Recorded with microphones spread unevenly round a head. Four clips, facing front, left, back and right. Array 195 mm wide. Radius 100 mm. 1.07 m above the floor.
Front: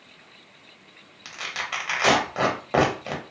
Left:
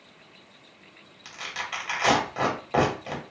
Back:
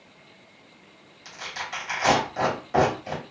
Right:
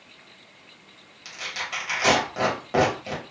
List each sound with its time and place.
1.2 s tearing paper: straight ahead, 1.4 m